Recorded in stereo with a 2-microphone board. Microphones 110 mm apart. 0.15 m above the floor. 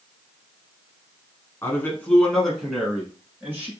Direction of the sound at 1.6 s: 25° left (ahead or behind).